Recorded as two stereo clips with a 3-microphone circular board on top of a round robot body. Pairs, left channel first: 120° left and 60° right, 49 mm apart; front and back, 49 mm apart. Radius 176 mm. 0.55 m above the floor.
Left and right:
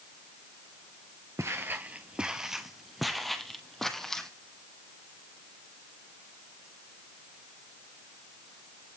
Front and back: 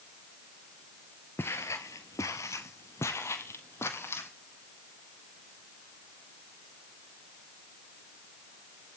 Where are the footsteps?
40° right, 0.6 m; by 4.3 s 40° left, 1.6 m.